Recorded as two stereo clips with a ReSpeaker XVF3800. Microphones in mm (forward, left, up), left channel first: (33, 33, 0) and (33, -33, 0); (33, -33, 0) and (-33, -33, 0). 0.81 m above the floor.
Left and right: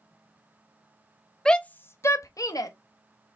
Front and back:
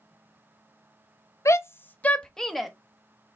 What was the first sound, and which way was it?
A shout, 15° left.